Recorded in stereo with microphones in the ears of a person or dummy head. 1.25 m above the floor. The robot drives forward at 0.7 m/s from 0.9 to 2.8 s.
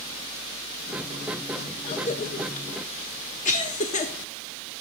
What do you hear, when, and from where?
1.8 s a cough: 30° left (ahead or behind), 0.7 m; by 4.1 s 35° left (ahead or behind), 0.7 m